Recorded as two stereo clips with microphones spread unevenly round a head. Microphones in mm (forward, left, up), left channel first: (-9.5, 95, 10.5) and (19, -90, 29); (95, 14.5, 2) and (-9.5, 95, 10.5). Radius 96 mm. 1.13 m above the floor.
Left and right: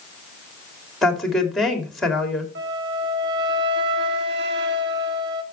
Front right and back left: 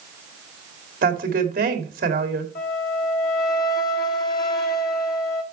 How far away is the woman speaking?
About 2.5 m.